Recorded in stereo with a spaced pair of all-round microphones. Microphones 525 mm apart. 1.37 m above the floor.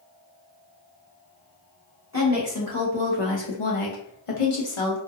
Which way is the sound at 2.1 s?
30° left (ahead or behind).